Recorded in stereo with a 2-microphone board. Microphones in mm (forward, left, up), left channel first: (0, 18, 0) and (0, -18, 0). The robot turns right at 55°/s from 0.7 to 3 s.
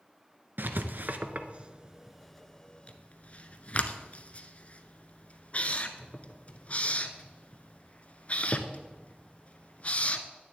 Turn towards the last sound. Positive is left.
turn(degrees=40)  # may be behind; listen again after turning